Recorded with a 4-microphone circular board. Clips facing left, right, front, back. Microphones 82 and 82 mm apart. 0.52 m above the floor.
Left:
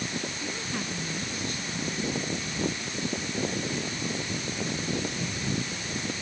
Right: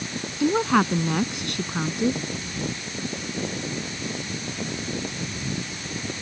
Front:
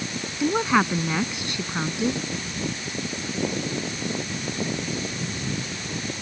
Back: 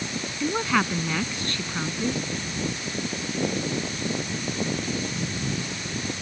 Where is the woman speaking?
75° right.